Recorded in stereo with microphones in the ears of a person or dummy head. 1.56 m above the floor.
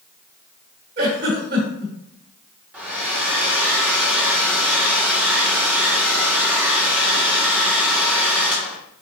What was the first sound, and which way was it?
A giggle, 50° right (ahead or behind).